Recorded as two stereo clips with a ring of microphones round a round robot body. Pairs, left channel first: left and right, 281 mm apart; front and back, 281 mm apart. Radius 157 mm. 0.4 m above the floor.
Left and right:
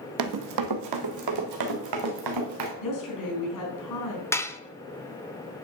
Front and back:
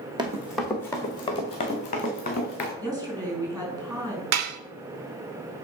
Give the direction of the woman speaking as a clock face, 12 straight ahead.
9 o'clock.